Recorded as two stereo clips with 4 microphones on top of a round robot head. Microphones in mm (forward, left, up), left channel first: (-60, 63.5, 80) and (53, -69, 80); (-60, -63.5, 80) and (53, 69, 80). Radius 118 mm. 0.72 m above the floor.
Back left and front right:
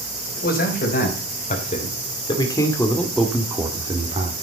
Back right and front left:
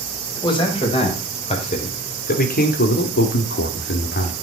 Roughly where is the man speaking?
Behind.